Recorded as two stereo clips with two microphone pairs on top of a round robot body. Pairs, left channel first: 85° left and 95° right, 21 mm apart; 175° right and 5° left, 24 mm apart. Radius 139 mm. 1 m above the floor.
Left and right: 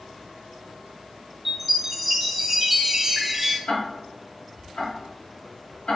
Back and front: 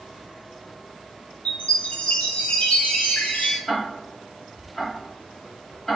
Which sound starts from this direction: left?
Ticking, at 3.7 s.